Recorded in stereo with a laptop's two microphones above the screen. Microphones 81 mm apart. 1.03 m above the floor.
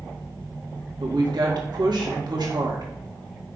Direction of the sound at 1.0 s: 65° right (ahead or behind).